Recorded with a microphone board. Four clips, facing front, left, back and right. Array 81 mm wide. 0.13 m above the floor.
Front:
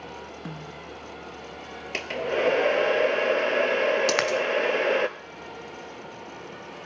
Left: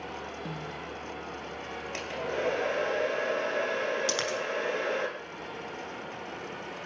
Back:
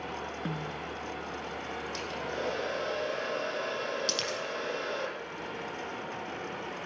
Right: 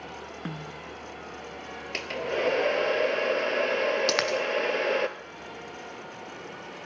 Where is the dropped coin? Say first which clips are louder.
Right 5 dB, front 11 dB; 25° right, 1.7 m.